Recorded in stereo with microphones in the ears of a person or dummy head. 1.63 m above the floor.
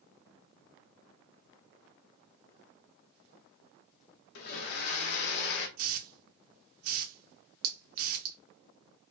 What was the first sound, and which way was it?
A blender, 65° left (ahead or behind).